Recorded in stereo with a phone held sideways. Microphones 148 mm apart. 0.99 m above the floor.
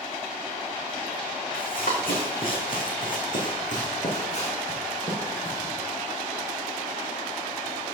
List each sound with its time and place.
1.5 s running footsteps: 70° left (ahead or behind), 3.5 m; by 5.7 s 30° left (ahead or behind), 4 m